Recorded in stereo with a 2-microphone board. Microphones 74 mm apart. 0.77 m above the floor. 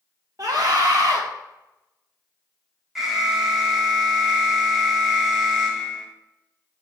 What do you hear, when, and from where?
0.4 s a scream: 55° right (ahead or behind), 0.6 m
3.0 s an alarm: 5° right (ahead or behind), 0.8 m